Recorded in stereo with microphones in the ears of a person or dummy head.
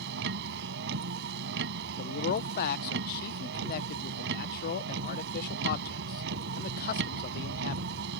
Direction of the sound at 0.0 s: 65° right (ahead or behind).